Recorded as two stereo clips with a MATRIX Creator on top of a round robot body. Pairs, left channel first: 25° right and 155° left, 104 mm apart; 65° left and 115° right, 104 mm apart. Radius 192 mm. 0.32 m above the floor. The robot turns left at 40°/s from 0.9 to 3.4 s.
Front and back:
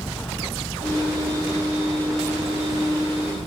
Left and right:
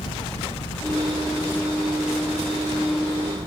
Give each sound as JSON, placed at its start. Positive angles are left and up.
{"t": 0.0, "sound": "an engine running", "azimuth_deg": 45}